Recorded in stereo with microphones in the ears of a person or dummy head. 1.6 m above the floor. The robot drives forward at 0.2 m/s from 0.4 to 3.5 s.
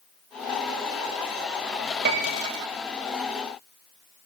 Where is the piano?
45° right (ahead or behind), 0.7 m; by 2.5 s 40° right (ahead or behind), 0.7 m.